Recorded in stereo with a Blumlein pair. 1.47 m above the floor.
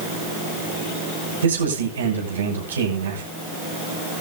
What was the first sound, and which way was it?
A man speaking, 70° right.